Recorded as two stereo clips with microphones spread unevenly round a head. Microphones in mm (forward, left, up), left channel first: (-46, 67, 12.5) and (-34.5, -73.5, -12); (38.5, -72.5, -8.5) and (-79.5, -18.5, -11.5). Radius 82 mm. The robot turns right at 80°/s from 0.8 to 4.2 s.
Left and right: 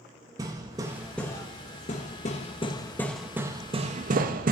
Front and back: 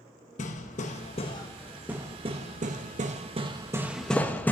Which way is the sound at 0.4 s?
10° right.